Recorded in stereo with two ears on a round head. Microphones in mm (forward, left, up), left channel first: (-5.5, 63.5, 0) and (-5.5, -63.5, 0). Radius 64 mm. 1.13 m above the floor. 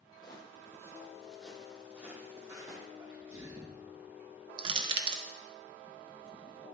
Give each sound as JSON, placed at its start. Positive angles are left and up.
{"t": 0.2, "sound": "footsteps", "side_deg": 30, "distance_m": 1.6}
{"t": 3.0, "sound": "a sneeze", "side_deg": -15, "distance_m": 0.9}
{"t": 4.6, "sound": "crushing", "side_deg": -30, "distance_m": 0.6}